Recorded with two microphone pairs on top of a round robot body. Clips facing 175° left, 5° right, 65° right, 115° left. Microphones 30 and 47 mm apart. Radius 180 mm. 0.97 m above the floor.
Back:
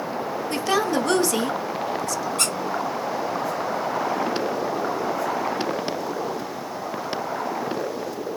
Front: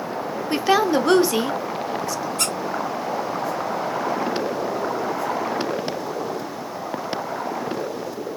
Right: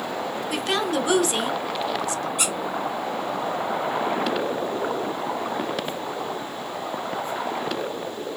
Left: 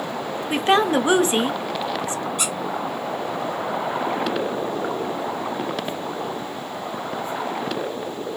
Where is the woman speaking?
65° left, 0.8 m.